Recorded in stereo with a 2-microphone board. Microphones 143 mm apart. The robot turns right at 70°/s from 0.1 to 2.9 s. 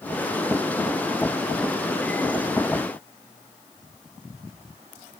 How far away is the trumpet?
I don't hear a trumpet.